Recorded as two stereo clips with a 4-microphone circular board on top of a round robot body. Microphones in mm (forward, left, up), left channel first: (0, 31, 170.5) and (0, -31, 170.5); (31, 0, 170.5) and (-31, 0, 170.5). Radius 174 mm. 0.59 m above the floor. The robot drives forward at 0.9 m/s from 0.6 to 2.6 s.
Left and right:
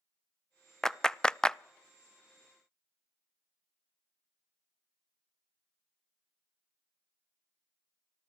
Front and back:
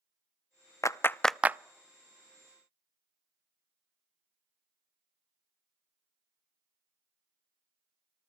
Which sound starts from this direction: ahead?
A clap, at 0.8 s.